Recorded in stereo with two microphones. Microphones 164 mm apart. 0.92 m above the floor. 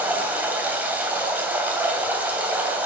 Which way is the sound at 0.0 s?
10° right (ahead or behind).